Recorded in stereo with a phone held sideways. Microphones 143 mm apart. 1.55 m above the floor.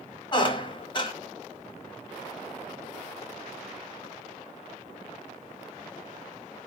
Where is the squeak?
30° left (ahead or behind), 1.0 m.